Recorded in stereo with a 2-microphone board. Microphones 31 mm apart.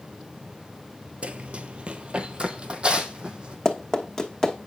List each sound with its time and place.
1.2 s running footsteps: 45° right (ahead or behind), 0.5 m; by 3.5 s 30° right (ahead or behind), 1.6 m
3.6 s running footsteps: 20° left (ahead or behind), 1.1 m